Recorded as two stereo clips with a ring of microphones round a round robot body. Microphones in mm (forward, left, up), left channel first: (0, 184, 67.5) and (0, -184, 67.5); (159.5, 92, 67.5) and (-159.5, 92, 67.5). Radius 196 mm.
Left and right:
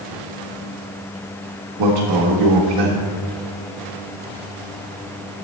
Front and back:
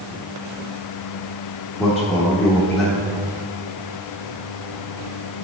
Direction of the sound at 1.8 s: 85° right.